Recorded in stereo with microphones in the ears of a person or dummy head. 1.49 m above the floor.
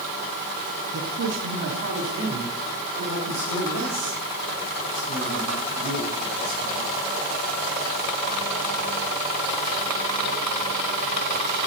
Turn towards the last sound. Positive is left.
turn(degrees=-65)  # may be behind; listen again after turning